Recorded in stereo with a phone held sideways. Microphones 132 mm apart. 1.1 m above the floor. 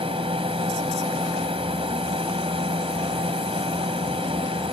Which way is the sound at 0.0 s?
45° right (ahead or behind).